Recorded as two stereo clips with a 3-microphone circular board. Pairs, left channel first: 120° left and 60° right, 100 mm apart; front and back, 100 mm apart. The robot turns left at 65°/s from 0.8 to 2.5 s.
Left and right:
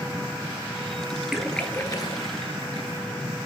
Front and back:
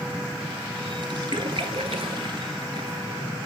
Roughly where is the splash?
Behind right.